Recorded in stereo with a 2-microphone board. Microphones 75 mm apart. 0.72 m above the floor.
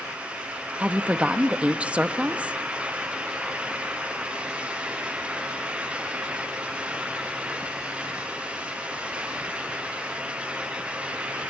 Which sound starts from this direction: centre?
A woman speaking, at 0.8 s.